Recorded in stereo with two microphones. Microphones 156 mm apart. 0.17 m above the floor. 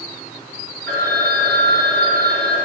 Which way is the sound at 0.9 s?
15° left (ahead or behind).